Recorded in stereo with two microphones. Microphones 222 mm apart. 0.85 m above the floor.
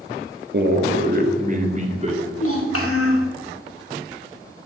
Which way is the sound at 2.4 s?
80° left.